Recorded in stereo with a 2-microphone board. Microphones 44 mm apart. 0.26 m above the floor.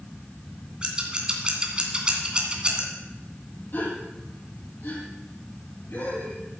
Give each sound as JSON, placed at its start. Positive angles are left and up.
{"t": 0.8, "sound": "scissors", "side_deg": -20, "distance_m": 2.5}
{"t": 3.7, "sound": "a gasp", "side_deg": 60, "distance_m": 7.0}